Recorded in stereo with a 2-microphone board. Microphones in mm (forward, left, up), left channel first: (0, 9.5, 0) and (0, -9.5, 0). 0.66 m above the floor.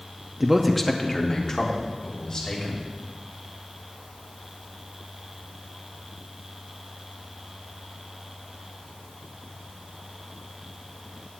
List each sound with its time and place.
0.4 s a man speaking: 20° right (ahead or behind), 0.8 m; by 2.9 s 50° left (ahead or behind), 3.5 m